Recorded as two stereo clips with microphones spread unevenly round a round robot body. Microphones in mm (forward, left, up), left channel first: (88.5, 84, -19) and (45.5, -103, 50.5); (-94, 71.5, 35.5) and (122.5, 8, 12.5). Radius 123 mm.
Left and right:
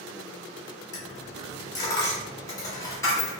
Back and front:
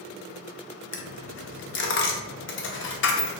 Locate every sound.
0.9 s a dropped coin: 130° left, 0.5 m